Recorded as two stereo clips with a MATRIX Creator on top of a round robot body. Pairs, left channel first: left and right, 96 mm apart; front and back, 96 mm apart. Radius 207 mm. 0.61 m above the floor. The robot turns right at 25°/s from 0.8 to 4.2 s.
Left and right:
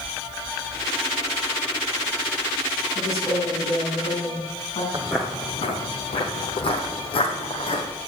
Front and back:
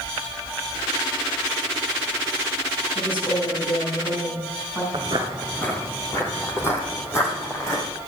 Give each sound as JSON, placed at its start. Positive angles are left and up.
{"t": 3.0, "sound": "a woman speaking", "azimuth_deg": 30, "distance_m": 7.0}
{"t": 4.9, "sound": "footsteps", "azimuth_deg": -135, "distance_m": 0.6}